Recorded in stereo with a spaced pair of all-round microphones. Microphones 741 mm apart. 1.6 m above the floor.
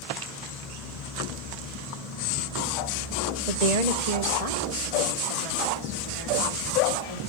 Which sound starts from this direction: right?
A woman speaking, at 3.5 s.